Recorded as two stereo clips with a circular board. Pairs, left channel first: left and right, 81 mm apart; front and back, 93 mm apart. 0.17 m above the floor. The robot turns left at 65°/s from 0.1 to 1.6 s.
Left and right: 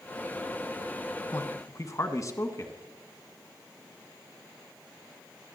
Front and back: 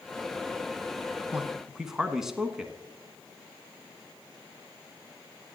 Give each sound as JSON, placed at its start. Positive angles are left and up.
{"t": 1.3, "sound": "a man speaking", "azimuth_deg": 115, "distance_m": 1.4}